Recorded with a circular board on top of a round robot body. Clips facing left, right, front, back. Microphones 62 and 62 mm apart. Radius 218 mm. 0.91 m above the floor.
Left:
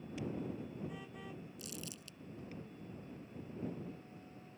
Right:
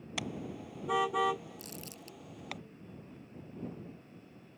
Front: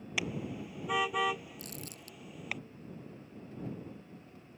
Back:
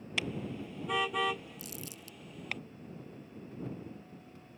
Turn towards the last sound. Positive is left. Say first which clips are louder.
# right 2 dB, even
turn(degrees=-35)